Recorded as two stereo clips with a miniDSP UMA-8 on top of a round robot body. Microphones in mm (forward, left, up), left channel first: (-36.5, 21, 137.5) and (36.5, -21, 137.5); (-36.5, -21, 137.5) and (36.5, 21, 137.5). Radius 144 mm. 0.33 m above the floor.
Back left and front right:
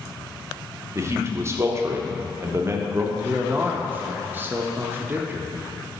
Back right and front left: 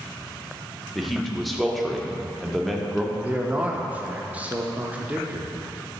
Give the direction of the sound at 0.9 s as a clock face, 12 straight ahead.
2 o'clock.